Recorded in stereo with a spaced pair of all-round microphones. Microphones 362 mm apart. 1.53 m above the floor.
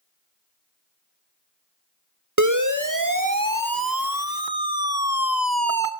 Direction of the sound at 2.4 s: 50° right (ahead or behind).